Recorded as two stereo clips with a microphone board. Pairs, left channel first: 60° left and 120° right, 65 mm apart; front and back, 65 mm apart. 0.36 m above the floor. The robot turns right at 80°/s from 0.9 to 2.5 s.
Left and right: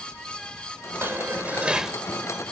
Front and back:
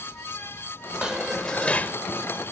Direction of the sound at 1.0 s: 115° right.